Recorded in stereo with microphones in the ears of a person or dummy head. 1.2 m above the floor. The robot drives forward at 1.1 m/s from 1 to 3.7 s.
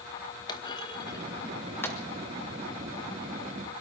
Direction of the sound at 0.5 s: 20° left (ahead or behind).